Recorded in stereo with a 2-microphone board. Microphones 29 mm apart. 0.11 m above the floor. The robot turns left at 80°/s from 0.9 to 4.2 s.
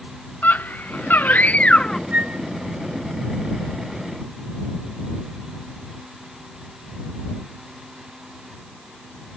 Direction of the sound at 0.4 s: 110° left.